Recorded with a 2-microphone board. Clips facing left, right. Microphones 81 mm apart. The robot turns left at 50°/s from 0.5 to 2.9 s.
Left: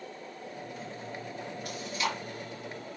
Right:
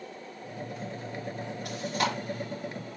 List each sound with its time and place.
1.6 s chewing: 75° right (ahead or behind), 5.5 m; by 2.1 s 55° right (ahead or behind), 5.5 m